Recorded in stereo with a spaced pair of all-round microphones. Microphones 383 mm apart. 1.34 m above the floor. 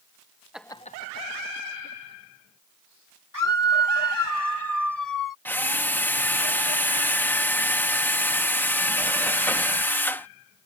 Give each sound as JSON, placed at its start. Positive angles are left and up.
{"t": 0.5, "sound": "laughter", "side_deg": -5}
{"t": 3.3, "sound": "a scream", "side_deg": 60}
{"t": 5.5, "sound": "a drill", "side_deg": 5}